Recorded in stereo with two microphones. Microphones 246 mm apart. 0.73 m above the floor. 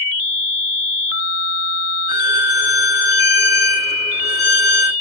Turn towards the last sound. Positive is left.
turn(degrees=45)  # may be behind; listen again after turning